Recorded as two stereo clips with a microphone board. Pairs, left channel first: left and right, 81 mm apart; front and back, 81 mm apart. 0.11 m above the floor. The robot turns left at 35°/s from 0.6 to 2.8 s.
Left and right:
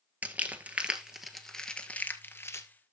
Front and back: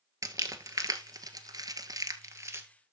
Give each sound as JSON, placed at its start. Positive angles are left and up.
{"t": 0.2, "sound": "crumpling", "azimuth_deg": -155, "distance_m": 1.0}